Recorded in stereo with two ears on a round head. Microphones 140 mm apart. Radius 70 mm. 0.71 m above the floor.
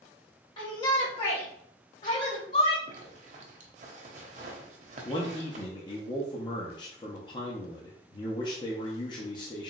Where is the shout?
30° left (ahead or behind), 1.1 m; by 2.8 s 50° left (ahead or behind), 1.9 m.